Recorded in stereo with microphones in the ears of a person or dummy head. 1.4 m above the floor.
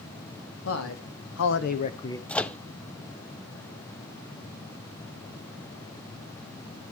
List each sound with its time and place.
0.7 s a man speaking: 85° left, 2 m; by 2.2 s 15° left (ahead or behind), 1.0 m
2.3 s a microwave: 5° left (ahead or behind), 0.5 m